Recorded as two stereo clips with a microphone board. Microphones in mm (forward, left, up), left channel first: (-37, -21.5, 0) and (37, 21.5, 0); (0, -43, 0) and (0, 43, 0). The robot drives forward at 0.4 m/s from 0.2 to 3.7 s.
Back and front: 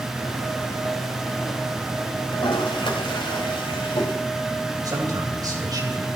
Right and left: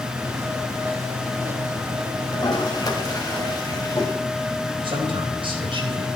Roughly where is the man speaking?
Left.